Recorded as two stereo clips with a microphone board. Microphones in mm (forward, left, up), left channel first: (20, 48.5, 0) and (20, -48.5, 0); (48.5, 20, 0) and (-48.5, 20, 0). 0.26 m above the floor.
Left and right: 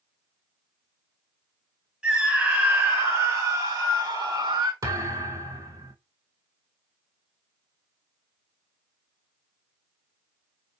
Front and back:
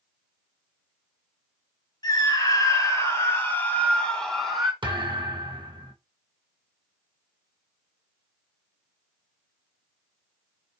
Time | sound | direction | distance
2.0 | a scream | 15° right | 2 m
4.8 | a thud | 140° right | 1.2 m